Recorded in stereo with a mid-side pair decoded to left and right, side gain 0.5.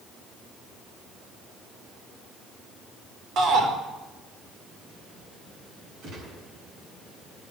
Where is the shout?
65° right, 4 m.